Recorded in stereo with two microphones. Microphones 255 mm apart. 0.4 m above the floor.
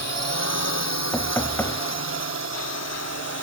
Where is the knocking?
10° left (ahead or behind).